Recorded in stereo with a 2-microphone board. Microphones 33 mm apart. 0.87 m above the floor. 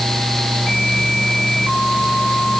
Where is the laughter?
I don't hear laughter.